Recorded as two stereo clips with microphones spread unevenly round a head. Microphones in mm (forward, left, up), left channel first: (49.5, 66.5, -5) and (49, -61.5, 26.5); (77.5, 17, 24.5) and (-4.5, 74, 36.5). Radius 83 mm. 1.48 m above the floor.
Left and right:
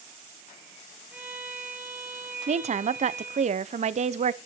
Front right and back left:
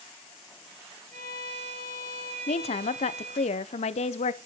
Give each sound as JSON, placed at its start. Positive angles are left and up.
{"t": 1.1, "sound": "a violin", "azimuth_deg": -175, "distance_m": 7.0}
{"t": 2.5, "sound": "a woman speaking", "azimuth_deg": -55, "distance_m": 0.8}